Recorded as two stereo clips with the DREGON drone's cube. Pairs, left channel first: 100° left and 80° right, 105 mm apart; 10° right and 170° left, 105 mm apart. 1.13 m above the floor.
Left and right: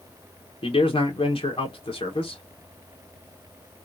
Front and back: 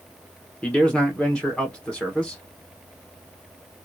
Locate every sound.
0.6 s a man speaking: 70° left, 1.1 m